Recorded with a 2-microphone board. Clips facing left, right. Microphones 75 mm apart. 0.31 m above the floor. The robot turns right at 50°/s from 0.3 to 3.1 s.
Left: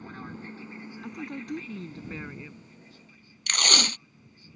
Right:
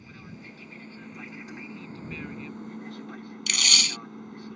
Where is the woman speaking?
95° left; by 2.7 s straight behind.